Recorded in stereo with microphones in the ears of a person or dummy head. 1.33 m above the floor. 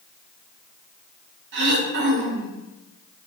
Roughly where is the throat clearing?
Right.